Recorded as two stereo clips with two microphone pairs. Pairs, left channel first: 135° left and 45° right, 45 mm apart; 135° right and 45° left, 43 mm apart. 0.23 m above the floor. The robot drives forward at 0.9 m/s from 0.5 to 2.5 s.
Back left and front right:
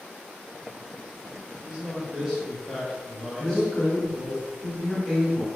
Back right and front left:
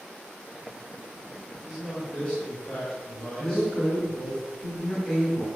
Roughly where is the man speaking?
Ahead right.